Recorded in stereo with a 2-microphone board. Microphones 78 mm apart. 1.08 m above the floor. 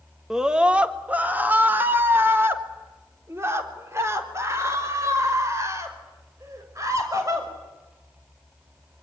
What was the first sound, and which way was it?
A scream, 5° right (ahead or behind).